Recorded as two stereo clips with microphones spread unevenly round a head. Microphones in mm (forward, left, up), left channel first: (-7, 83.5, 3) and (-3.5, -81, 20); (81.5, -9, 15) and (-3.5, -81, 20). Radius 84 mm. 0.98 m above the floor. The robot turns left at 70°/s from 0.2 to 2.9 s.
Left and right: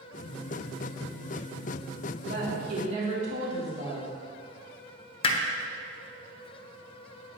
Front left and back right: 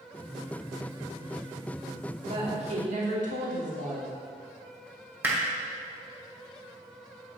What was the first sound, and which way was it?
A woman speaking, 95° right.